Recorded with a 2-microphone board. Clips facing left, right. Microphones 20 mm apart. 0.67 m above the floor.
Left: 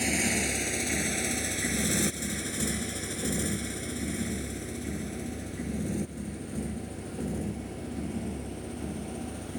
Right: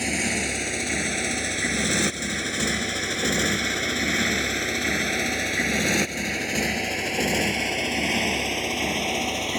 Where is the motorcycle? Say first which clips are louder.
Right 3 dB; 15° right (ahead or behind); by 9.6 s 75° right (ahead or behind).